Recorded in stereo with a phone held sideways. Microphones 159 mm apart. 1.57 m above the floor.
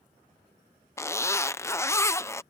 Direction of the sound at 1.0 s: 15° left (ahead or behind).